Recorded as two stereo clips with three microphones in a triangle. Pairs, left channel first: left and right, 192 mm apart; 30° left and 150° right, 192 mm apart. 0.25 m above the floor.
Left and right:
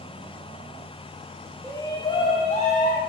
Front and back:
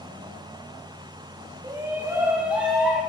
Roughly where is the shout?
Behind left.